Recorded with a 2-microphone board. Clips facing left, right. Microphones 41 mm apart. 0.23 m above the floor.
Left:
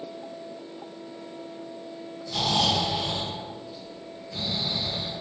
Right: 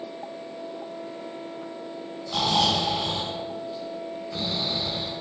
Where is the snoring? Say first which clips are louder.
Right 2 dB; 35° right (ahead or behind), 1.5 m.